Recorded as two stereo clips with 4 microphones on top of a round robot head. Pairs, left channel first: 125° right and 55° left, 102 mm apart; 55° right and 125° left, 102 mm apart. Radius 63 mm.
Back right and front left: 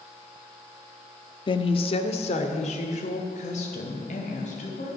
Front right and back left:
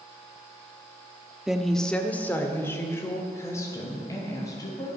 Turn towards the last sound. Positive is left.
turn(degrees=-115)